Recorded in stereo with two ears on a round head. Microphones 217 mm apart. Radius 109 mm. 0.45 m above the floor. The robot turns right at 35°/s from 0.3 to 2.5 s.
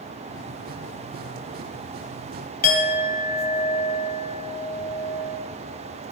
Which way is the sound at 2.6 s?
40° left (ahead or behind).